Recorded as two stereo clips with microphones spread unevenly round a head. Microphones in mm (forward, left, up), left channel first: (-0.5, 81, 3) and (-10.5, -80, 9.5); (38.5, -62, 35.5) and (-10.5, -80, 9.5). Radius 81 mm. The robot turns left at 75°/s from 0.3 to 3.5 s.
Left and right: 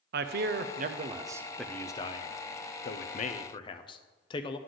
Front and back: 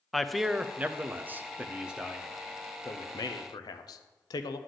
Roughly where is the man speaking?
Right.